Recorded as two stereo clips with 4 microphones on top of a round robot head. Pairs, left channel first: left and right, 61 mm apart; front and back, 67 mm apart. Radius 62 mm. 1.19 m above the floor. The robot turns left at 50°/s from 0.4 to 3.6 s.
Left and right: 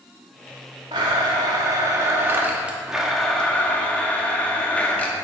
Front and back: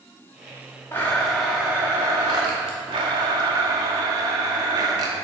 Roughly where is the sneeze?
I don't hear a sneeze.